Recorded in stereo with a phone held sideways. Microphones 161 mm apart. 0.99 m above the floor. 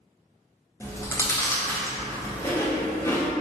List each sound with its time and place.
0.8 s chewing: 15° left (ahead or behind), 0.5 m